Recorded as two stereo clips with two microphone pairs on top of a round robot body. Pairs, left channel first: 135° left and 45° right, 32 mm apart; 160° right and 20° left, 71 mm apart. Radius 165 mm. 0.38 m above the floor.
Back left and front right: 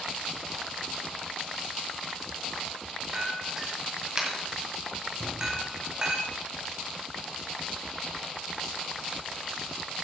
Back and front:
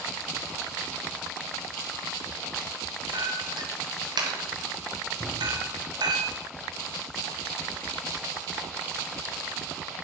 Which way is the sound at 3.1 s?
20° left.